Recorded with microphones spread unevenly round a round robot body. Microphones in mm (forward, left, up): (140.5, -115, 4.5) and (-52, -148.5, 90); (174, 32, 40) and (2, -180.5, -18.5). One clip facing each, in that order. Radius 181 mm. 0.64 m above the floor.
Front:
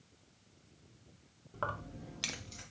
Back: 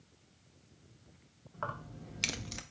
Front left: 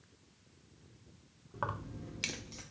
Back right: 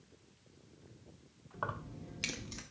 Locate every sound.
1.5 s keys jangling: 10° right, 1.1 m; by 2.6 s 170° right, 0.6 m